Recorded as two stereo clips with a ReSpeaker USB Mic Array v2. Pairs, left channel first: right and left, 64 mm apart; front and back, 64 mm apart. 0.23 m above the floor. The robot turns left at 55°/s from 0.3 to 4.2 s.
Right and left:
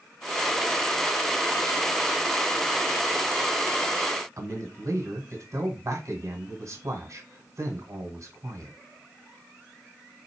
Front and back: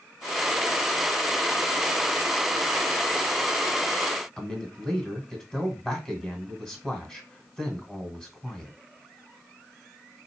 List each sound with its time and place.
4.4 s a man speaking: 85° left, 1.6 m